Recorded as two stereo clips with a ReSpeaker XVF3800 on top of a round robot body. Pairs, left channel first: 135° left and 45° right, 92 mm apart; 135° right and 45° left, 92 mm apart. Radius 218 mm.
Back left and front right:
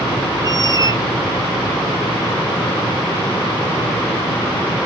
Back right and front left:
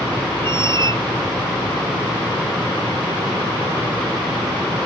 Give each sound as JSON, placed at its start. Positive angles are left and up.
{"t": 0.4, "sound": "a squeak", "azimuth_deg": 10}